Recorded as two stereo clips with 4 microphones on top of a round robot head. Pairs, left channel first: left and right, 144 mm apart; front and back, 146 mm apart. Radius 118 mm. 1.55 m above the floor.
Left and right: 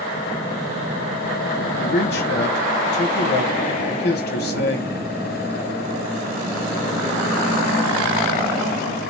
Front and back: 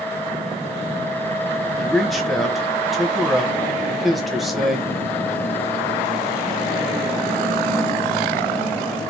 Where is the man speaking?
90° left, 1.2 m.